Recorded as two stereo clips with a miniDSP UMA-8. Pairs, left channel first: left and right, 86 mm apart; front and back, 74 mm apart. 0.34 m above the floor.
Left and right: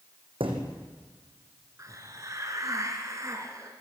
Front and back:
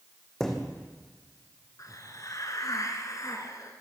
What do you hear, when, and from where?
0.4 s a thud: 85° right, 3.5 m
1.8 s a hiss: 40° right, 2.5 m